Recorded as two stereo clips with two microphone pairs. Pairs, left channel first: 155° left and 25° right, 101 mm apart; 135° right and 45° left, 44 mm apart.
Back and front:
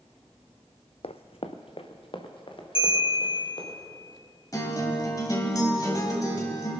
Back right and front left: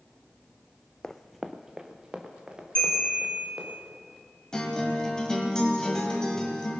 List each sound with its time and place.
1.0 s running footsteps: 155° left, 0.5 m; by 3.8 s 115° left, 3.5 m
2.8 s a bell: 170° left, 6 m
4.5 s a guitar: 165° left, 1.9 m